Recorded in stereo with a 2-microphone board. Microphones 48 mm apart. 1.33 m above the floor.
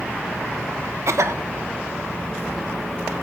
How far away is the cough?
About 1.2 m.